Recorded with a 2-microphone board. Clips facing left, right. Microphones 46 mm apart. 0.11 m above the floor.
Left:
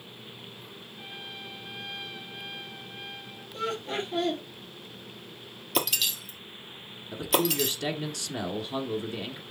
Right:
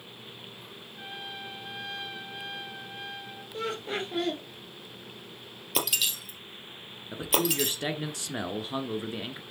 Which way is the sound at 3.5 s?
20° right (ahead or behind).